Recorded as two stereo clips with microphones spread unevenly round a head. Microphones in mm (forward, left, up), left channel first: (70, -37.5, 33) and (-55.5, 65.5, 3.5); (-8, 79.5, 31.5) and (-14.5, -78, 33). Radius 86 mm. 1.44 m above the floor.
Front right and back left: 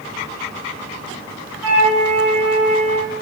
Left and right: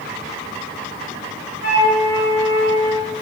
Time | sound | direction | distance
1.6 | a flute | 60° left | 5 m